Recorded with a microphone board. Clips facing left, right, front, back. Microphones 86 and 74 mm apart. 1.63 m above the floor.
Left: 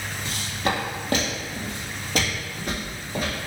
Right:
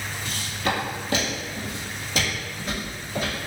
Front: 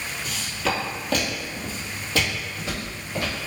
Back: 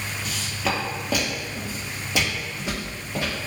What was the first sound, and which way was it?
Footsteps, 90° left.